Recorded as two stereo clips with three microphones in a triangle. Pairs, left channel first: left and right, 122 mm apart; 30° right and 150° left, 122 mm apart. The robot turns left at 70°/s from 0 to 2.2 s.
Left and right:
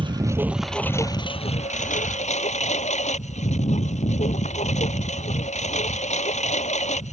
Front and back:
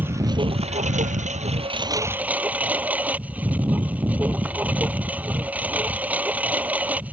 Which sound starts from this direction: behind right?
A lawn mower, at 0.0 s.